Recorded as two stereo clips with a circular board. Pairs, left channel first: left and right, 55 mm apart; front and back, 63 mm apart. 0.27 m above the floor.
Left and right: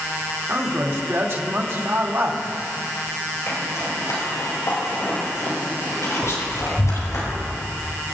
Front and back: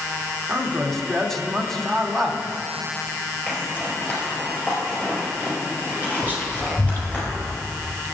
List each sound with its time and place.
0.5 s a man speaking: 80° right, 1.6 m
3.5 s a zipper: 65° left, 4 m
6.2 s whispering: 65° left, 3.5 m